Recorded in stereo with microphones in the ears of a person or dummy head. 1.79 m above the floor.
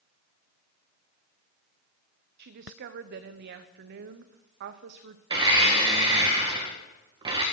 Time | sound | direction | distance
2.4 | a woman speaking | 60° right (ahead or behind) | 1.0 m
5.3 | a blender | 30° right (ahead or behind) | 1.9 m